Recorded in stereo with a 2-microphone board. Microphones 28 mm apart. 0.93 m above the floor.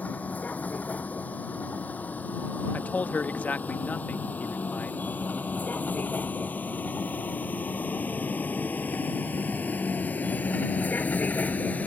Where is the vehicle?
65° left (ahead or behind); by 11.9 s 60° left (ahead or behind).